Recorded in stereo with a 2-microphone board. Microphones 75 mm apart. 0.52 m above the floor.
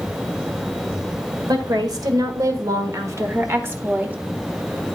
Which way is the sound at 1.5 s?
65° right (ahead or behind).